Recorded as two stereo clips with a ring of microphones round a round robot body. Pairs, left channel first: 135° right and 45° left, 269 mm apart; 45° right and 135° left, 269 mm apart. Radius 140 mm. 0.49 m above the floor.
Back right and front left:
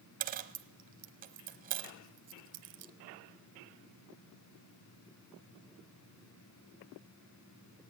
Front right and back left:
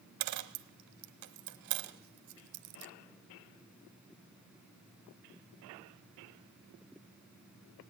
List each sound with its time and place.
0.2 s a dropped coin: 105° left, 1.0 m